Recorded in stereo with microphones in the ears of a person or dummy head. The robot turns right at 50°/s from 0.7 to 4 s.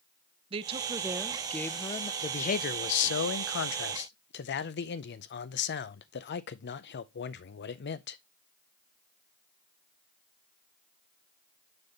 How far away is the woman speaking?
About 0.6 m.